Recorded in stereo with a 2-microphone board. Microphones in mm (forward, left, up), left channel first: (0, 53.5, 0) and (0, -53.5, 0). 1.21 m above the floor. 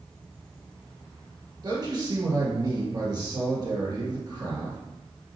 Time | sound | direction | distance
1.6 | a man speaking | 35° right (ahead or behind) | 1.9 m